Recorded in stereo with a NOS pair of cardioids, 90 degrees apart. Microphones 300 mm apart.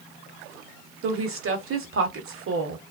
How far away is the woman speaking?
About 1.2 m.